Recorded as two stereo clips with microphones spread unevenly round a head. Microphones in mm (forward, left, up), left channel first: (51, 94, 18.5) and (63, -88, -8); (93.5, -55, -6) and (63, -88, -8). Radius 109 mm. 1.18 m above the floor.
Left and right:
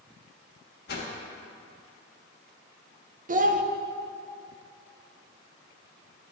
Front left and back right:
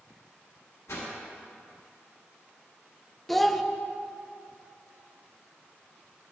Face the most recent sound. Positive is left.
turn(degrees=-40)